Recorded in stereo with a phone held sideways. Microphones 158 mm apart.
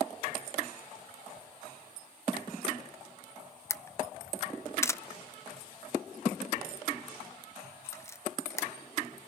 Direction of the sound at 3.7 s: 15° left (ahead or behind).